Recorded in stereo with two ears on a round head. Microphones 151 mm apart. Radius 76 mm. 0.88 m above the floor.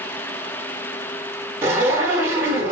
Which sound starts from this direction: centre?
A zipper, at 1.6 s.